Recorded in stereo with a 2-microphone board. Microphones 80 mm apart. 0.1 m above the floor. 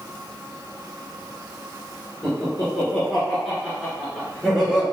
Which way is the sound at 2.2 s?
5° left (ahead or behind).